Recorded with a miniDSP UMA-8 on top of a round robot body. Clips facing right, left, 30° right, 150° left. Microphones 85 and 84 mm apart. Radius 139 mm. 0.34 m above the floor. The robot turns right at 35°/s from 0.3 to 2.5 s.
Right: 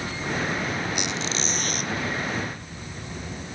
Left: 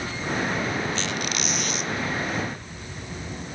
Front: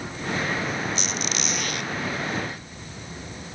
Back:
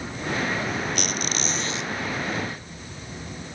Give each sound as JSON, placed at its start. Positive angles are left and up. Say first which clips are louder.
{"t": 0.9, "sound": "a squeak", "louder": "even, back 1 dB", "azimuth_deg": -170}